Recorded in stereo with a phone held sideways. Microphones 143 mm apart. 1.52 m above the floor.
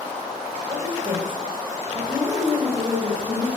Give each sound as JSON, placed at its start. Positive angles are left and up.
{"t": 0.7, "sound": "a woman speaking", "side_deg": -35, "distance_m": 6.5}